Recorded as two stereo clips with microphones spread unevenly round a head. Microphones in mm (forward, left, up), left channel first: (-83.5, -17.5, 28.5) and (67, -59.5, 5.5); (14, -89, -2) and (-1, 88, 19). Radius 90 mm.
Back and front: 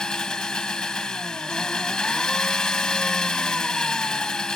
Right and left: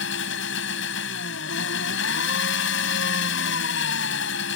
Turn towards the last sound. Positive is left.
turn(degrees=-110)